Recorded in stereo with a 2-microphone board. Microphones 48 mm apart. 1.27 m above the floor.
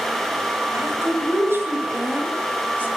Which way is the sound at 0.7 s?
60° right (ahead or behind).